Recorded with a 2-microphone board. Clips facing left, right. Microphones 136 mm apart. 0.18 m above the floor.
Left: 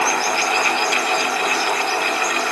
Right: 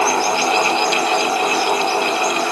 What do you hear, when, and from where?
Only background noise.